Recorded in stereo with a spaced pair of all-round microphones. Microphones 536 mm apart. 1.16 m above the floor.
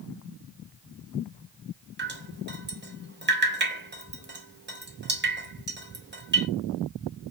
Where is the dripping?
20° right (ahead or behind), 0.5 m.